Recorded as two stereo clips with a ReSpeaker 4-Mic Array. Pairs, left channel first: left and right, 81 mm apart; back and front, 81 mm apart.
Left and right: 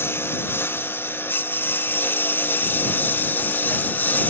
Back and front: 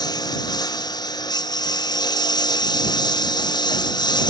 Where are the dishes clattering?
No dishes clattering in this recording.